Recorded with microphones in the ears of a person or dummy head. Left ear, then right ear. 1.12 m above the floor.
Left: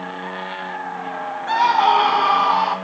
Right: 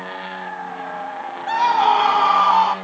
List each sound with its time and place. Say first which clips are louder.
1.5 s a scream: left 1 dB; centre (ahead or behind), 0.9 m; by 2.7 s 25° right (ahead or behind), 1.7 m